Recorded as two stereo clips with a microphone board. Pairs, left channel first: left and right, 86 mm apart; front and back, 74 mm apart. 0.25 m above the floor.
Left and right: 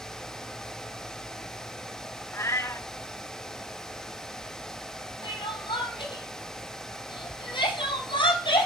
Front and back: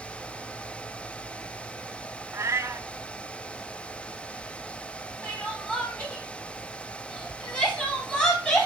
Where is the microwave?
I don't hear a microwave.